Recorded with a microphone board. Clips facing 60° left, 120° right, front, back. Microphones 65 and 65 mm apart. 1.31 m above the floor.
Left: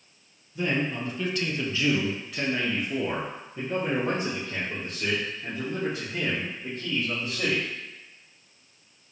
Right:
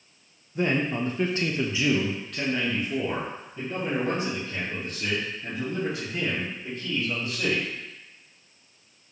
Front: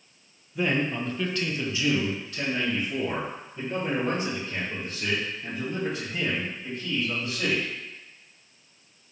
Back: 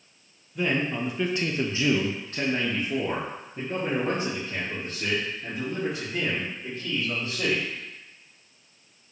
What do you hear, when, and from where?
0.6 s a man speaking: 85° right, 0.8 m; by 7.7 s 120° left, 3.5 m